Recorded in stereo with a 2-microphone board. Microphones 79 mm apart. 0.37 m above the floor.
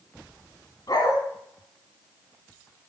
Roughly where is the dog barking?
Left.